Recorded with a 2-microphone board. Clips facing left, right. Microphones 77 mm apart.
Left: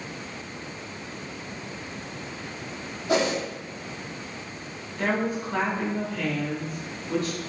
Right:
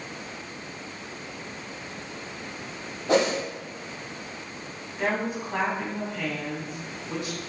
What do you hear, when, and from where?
3.1 s a whoosh: 45° right (ahead or behind), 2 m
5.0 s a woman speaking: 15° right (ahead or behind), 1.6 m